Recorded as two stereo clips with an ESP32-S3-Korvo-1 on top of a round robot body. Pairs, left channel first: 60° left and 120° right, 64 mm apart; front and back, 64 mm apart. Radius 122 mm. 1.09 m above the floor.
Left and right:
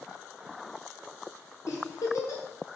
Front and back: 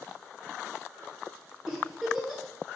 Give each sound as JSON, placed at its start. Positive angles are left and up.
{"t": 1.7, "sound": "a giggle", "azimuth_deg": 95, "distance_m": 1.6}